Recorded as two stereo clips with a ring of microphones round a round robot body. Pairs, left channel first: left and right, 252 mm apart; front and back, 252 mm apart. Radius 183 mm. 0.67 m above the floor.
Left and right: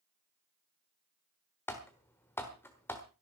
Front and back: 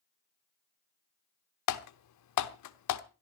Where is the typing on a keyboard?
5° left, 1.0 m.